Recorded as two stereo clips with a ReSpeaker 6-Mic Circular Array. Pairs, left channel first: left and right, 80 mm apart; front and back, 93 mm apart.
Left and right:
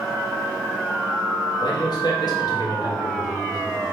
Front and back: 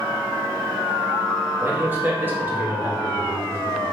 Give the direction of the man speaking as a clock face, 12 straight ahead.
8 o'clock.